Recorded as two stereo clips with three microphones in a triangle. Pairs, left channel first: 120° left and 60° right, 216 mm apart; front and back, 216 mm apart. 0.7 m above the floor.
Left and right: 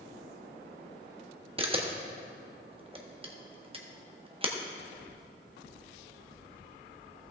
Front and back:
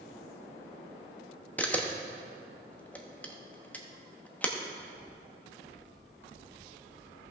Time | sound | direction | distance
1.6 | a camera shutter | 75° right | 0.9 m